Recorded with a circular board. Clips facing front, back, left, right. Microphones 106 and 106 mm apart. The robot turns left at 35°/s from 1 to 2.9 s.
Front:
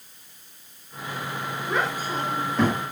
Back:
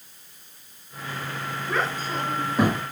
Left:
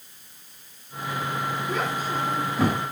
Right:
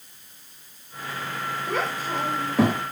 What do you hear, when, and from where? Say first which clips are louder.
1.7 s a child speaking: front 1 dB, right 3 dB; 70° right, 6 m; by 2.8 s 110° right, 6 m